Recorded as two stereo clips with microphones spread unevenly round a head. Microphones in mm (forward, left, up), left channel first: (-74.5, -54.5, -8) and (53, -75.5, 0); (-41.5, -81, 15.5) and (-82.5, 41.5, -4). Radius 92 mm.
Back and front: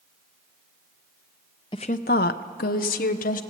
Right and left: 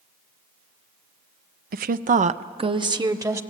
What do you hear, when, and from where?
1.7 s a woman speaking: 100° left, 0.6 m; by 3.4 s 175° left, 1.3 m